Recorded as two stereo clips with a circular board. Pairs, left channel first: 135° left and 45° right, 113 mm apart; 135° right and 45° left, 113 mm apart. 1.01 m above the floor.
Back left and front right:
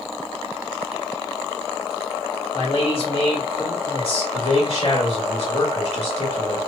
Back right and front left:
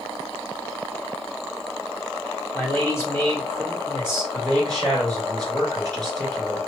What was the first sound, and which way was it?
A man speaking, 160° left.